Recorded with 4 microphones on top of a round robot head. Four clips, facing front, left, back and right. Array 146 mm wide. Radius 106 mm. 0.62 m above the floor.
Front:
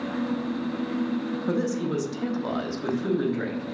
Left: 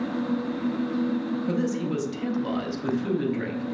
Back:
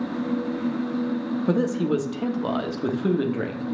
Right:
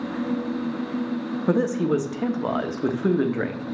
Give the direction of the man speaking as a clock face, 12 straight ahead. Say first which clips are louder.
Right 8 dB, back 5 dB; 4 o'clock.